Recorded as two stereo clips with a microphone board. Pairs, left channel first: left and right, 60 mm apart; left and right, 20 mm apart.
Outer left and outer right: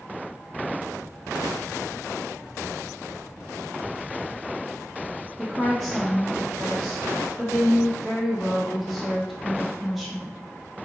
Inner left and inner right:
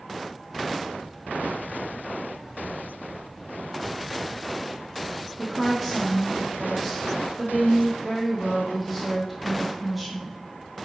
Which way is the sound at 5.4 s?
Centre (ahead or behind).